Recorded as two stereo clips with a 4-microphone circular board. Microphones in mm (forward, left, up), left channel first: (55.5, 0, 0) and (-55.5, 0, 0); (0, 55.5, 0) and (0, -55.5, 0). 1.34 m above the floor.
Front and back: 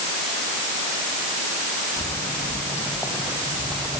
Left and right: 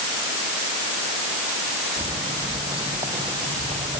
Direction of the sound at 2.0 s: 50° right.